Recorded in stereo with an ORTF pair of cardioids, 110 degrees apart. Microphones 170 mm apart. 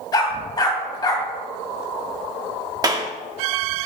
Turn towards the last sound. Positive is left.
turn(degrees=-25)